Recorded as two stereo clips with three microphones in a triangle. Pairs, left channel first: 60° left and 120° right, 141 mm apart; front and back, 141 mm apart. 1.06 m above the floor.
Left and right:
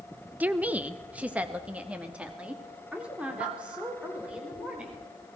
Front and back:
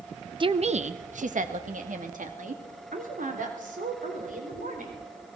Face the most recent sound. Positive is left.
turn(degrees=160)